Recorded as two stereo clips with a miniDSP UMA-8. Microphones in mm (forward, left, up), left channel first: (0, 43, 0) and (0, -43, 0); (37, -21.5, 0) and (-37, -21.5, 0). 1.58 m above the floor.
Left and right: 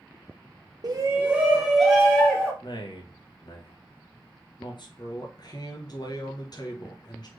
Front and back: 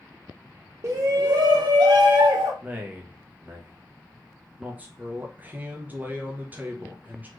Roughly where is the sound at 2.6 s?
Behind left.